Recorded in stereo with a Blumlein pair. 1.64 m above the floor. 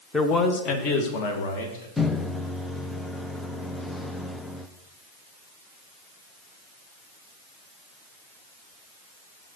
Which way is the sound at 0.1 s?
10° left.